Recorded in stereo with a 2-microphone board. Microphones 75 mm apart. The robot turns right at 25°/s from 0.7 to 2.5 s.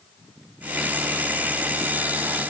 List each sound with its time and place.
Only background noise.